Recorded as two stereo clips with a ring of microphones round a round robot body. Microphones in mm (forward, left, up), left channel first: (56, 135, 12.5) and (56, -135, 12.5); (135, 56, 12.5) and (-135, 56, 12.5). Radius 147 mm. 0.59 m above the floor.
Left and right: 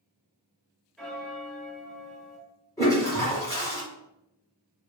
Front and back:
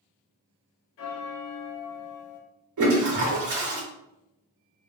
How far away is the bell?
About 0.9 m.